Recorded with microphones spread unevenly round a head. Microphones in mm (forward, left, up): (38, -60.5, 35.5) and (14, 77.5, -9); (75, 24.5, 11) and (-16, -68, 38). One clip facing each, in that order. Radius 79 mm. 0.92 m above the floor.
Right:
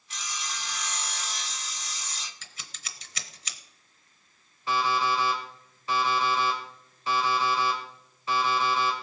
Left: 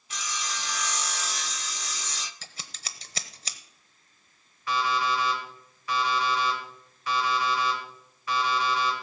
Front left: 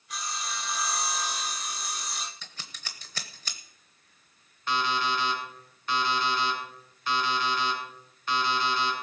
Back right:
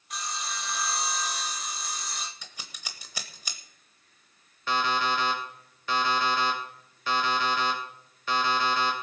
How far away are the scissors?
About 0.8 m.